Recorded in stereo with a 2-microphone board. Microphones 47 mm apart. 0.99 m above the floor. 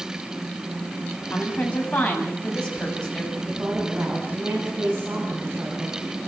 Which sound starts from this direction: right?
A woman speaking, at 3.3 s.